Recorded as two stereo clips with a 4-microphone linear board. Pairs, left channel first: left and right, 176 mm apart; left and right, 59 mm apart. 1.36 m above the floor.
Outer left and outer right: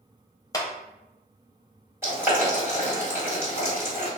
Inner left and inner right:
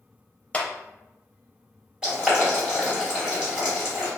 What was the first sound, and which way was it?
A clap, 20° left (ahead or behind).